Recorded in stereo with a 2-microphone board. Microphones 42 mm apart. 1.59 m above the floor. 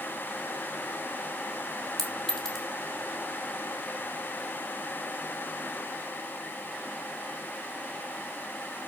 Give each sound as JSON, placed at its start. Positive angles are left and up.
{"t": 2.0, "sound": "a clink", "side_deg": 10, "distance_m": 3.0}